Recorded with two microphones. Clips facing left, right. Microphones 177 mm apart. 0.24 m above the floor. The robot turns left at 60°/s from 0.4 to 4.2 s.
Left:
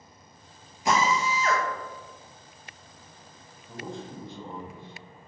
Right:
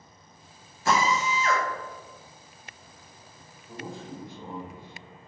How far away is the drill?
About 0.5 m.